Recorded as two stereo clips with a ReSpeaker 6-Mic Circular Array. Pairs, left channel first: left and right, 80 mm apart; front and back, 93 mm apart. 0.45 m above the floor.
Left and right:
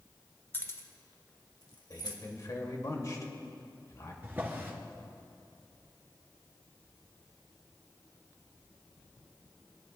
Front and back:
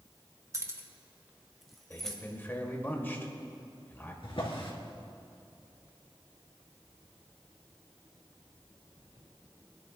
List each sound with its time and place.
0.5 s keys jangling: 140° left, 1.0 m; by 2.2 s 85° left, 1.8 m
1.9 s a man speaking: 60° left, 1.8 m
4.2 s a drawer: 25° right, 2 m